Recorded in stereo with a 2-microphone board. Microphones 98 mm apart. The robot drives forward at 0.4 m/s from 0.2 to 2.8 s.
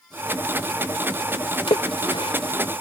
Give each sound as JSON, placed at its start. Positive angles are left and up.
{"t": 1.7, "sound": "a splash", "side_deg": 70}